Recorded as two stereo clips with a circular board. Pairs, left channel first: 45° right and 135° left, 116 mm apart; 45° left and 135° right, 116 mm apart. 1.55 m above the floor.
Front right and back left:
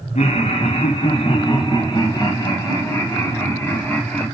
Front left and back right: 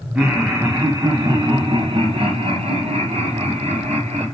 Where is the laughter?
50° right, 1.2 m; by 4.3 s 125° right, 2.5 m.